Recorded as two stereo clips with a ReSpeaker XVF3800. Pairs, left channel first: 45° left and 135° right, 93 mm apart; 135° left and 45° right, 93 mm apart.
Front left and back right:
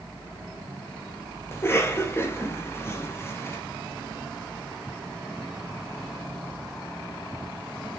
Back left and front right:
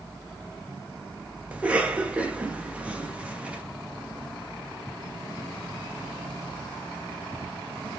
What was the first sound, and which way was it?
A cough, 15° left.